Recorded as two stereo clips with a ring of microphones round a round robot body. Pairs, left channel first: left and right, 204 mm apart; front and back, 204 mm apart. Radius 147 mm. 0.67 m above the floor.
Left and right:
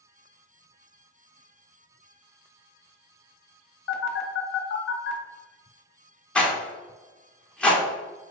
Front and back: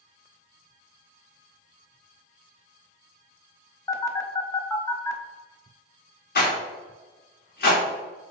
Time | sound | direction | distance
3.9 | a phone buzzing | 75° left | 0.9 m
6.3 | a rattle | 5° left | 1.2 m